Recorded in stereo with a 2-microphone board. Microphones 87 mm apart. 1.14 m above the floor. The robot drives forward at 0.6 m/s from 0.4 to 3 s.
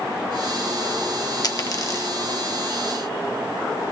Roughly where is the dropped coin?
Left.